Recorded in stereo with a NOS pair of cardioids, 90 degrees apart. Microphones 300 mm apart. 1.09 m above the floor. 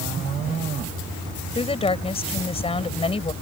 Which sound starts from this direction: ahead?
A woman speaking, at 1.6 s.